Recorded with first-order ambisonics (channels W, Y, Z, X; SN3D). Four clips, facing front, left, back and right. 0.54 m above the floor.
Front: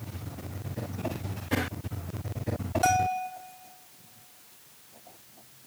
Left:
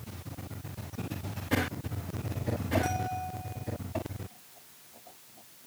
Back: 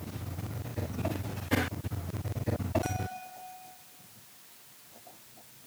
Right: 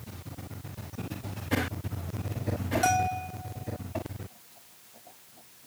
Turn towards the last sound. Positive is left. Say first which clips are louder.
# right 7 dB, front 12 dB
turn(degrees=-55)